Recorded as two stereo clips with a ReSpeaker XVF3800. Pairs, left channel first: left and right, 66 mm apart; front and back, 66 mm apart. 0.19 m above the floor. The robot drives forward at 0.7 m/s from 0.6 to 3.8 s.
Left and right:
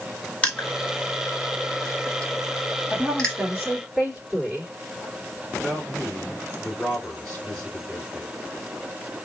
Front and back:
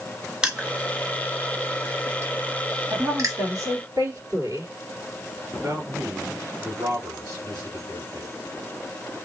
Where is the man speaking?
165° left, 3 m.